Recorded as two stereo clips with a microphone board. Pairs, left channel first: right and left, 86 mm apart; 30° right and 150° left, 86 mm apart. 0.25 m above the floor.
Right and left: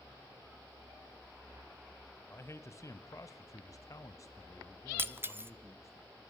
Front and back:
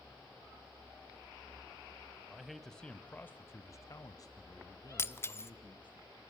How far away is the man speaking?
About 1.4 m.